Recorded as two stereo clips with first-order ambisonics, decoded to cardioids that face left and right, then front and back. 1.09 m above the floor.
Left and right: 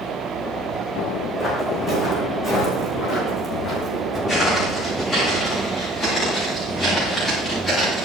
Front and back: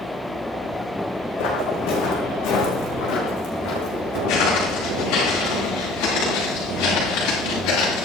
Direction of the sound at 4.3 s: 15° left.